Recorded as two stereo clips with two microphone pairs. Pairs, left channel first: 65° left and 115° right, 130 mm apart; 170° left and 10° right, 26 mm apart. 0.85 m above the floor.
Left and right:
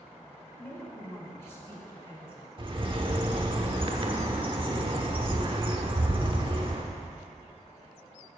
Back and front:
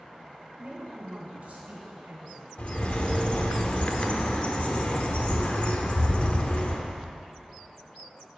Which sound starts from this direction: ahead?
A woman speaking, at 0.5 s.